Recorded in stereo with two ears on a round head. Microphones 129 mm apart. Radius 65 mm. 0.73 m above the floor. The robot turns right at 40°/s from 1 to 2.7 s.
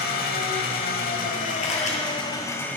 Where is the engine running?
95° left, 1.0 m; by 2.8 s 165° left, 1.0 m.